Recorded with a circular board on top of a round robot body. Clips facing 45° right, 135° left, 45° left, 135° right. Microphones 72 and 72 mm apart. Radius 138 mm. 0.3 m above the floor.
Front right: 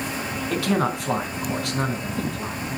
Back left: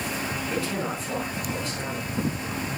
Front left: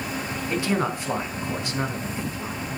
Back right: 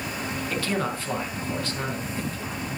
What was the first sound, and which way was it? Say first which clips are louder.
A man speaking: front right 9 dB, front left 4 dB; 30° right.